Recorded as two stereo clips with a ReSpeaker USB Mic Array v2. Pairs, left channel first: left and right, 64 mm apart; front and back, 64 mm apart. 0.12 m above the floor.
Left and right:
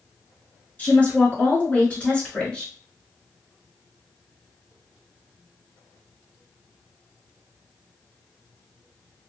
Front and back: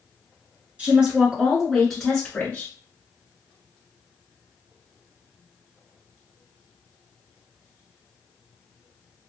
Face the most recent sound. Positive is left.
turn(degrees=40)